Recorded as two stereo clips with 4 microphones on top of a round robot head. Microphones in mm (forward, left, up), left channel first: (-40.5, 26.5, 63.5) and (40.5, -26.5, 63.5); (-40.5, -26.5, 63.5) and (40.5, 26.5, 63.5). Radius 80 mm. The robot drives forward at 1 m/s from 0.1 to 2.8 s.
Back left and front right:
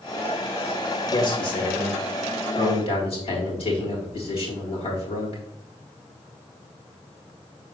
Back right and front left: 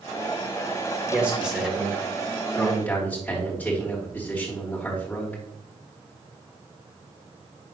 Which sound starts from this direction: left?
A man speaking, at 1.1 s.